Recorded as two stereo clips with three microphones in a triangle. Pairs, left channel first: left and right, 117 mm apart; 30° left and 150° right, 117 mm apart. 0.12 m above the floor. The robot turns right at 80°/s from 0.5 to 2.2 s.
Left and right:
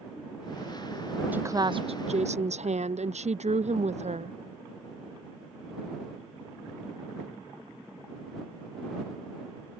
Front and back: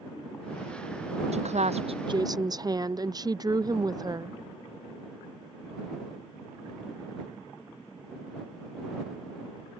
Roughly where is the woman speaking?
Behind.